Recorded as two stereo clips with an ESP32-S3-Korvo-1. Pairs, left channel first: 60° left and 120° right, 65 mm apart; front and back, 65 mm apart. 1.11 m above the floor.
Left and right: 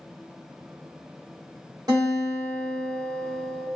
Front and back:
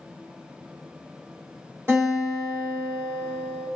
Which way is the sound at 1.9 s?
125° right.